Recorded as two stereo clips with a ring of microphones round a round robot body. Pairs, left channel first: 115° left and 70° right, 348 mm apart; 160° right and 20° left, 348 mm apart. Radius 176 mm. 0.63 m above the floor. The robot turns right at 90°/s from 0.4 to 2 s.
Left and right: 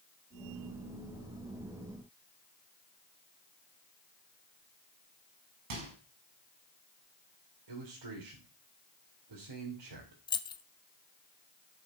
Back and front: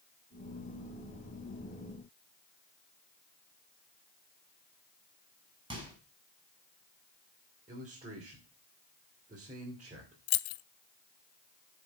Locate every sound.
5.7 s a microwave: 55° right, 5 m
7.7 s a man speaking: 45° right, 3 m
10.3 s keys jangling: 170° right, 0.6 m